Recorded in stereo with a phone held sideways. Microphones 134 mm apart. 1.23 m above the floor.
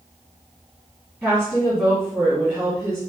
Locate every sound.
1.2 s a woman speaking: 15° right (ahead or behind), 1.8 m